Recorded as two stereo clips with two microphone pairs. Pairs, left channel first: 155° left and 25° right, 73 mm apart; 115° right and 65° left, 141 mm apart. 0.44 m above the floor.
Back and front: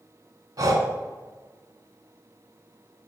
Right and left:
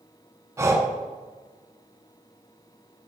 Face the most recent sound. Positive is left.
turn(degrees=0)